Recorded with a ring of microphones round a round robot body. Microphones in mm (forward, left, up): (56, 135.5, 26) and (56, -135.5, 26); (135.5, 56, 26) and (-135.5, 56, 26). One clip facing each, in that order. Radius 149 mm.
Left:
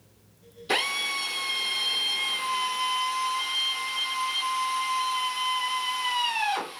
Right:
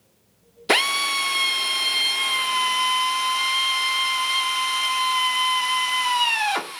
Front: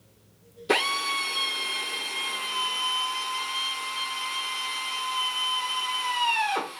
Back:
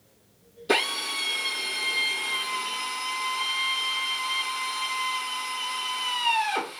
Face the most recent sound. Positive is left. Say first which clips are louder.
# right 7 dB, even
turn(degrees=-90)